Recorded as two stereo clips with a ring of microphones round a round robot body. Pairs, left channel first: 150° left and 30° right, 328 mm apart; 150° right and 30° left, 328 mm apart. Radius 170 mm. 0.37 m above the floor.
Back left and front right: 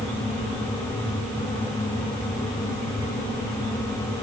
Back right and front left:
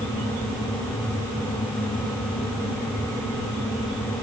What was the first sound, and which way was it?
Only background noise.